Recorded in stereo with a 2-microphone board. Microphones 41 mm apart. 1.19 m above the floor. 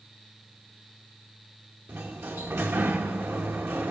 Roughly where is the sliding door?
Right.